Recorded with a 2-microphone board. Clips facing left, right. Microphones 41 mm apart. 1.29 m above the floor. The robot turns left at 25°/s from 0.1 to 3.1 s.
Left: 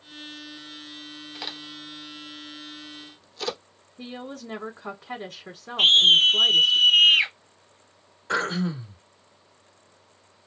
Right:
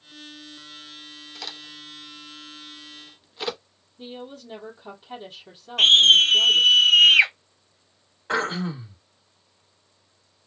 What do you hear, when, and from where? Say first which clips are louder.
1.4 s a crack: left 1 dB; 15° left (ahead or behind), 0.8 m; by 3.6 s 20° right (ahead or behind), 0.8 m
4.0 s a woman speaking: left 1 dB; 75° left (ahead or behind), 0.9 m
5.8 s a scream: right 2 dB; 80° right, 1.0 m
8.3 s throat clearing: even; 20° right (ahead or behind), 1.5 m